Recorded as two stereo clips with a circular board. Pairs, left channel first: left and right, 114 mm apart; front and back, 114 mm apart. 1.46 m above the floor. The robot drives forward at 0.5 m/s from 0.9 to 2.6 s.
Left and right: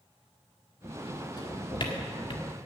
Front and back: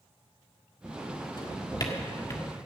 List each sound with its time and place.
1.4 s a drawer: 45° left, 1.8 m; by 2.5 s 60° left, 1.5 m